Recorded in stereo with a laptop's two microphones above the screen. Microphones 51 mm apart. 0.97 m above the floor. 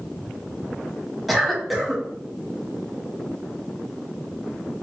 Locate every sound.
1.3 s a cough: 5° right (ahead or behind), 0.9 m